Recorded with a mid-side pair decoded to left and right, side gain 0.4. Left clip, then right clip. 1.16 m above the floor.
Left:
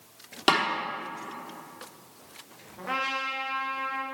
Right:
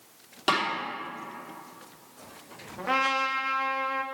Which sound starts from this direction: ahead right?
A trumpet, at 2.8 s.